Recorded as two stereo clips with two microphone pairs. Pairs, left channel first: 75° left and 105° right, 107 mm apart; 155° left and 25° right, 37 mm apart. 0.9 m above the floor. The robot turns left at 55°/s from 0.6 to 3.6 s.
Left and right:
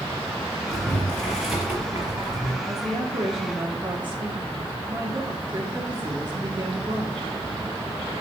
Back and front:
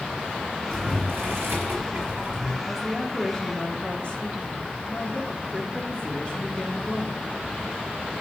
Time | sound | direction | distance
0.7 | boiling | 25° left | 4.5 m
2.6 | a woman speaking | 95° right | 1.8 m